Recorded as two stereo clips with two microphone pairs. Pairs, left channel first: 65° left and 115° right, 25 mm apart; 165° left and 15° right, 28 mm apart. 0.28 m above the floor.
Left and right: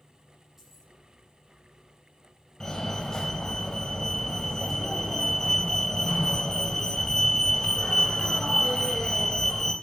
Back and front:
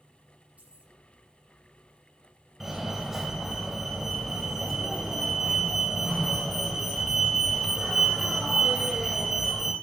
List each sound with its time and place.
0.6 s keys jangling: 40° right, 7 m
2.6 s a fire alarm: 45° left, 2.5 m